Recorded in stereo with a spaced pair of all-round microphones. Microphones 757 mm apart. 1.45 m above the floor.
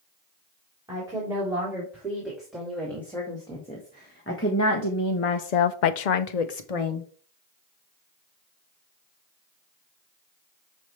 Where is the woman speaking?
5° right (ahead or behind), 4 m; by 7.1 s 40° left (ahead or behind), 1.3 m.